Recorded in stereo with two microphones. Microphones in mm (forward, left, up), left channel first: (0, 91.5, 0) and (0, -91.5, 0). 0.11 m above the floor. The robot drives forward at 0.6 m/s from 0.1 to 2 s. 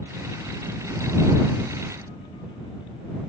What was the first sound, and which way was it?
Only background noise.